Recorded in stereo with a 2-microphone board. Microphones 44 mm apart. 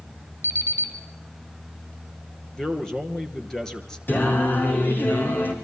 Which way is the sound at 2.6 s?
10° left (ahead or behind).